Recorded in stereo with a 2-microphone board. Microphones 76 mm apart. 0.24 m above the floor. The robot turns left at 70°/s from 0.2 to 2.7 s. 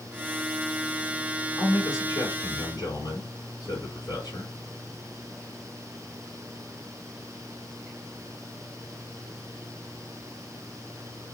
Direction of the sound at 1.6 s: 145° left.